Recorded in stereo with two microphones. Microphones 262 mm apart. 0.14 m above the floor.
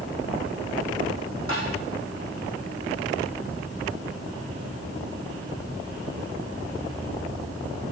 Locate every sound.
1.5 s tapping: 50° left (ahead or behind), 6 m